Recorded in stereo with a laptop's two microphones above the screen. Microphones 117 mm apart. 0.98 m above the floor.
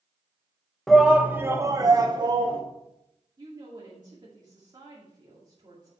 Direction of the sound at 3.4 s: 35° right (ahead or behind).